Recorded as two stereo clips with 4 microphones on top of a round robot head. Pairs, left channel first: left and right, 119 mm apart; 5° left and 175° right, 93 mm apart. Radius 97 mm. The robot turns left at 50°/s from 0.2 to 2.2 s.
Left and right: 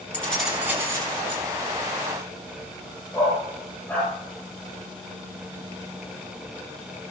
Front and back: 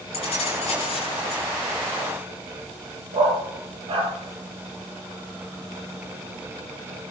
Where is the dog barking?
170° left, 6 m.